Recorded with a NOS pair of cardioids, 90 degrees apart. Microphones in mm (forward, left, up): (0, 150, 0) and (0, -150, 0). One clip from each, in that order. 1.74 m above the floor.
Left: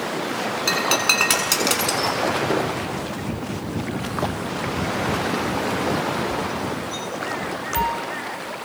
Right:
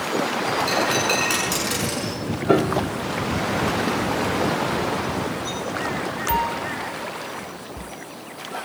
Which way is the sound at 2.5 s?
35° right.